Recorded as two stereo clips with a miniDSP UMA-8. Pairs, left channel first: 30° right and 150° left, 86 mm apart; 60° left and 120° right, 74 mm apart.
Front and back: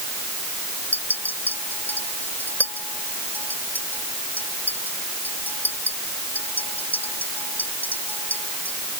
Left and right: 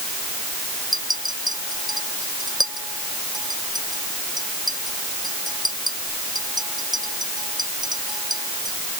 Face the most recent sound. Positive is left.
turn(degrees=-100)